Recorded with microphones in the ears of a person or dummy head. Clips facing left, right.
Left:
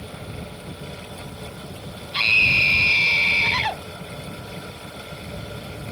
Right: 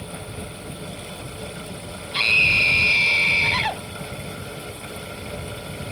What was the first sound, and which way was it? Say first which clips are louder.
A scream: right 1 dB; 5° right (ahead or behind).